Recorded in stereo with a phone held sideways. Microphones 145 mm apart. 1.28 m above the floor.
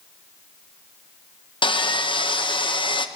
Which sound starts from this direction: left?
Sawing, at 1.6 s.